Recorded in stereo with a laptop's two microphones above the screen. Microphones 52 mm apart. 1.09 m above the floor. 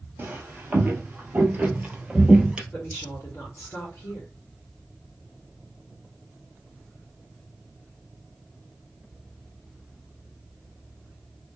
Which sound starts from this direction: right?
Footsteps, at 0.2 s.